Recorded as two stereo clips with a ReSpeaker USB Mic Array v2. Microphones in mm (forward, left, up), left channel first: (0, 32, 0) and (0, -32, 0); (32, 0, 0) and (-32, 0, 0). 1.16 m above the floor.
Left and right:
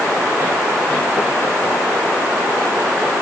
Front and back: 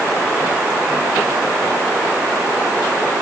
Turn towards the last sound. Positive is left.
No sound to turn to.